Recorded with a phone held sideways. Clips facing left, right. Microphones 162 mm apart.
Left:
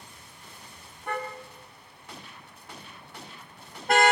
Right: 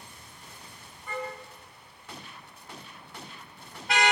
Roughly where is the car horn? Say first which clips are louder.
Left 2 dB; left.